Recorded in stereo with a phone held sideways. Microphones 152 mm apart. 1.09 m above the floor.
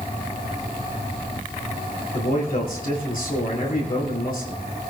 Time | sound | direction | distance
2.1 | a man speaking | 70° left (ahead or behind) | 7 m